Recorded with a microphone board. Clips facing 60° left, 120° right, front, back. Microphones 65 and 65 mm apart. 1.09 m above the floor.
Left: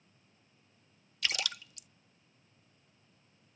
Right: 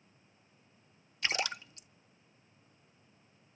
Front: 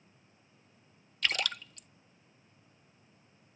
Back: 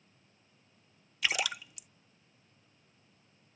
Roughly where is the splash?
Right.